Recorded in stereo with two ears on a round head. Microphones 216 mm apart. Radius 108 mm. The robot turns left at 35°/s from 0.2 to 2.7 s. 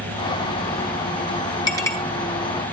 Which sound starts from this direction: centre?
A clink, at 1.7 s.